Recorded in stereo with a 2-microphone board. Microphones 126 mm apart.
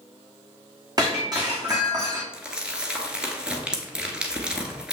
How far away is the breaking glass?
About 2 m.